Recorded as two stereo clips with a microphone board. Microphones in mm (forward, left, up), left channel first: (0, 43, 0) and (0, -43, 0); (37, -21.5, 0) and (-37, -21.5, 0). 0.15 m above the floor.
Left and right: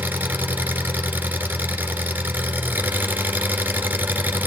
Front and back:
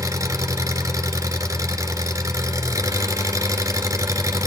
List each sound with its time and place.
0.0 s an engine running: 155° right, 1.6 m